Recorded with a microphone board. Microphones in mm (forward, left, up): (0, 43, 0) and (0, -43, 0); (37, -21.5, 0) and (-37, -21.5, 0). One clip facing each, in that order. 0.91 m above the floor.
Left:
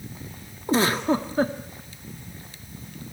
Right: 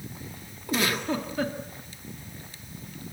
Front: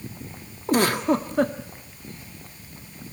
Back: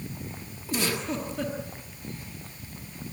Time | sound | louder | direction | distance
0.7 | a giggle | left 6 dB, front 9 dB | 35° left | 1.4 m